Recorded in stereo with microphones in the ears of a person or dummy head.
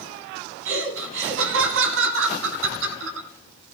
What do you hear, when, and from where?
0.7 s laughter: 85° right, 4 m